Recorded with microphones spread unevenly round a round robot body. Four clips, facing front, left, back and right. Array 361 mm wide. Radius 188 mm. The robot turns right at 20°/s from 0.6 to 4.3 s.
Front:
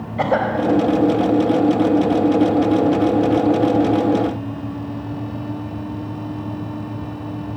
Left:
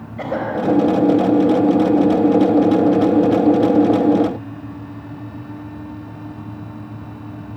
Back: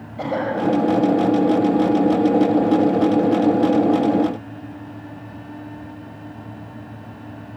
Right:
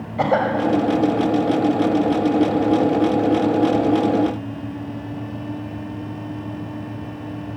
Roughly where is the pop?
No pop in this recording.